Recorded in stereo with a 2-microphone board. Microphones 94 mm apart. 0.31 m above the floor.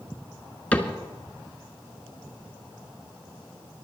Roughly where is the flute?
I don't hear a flute.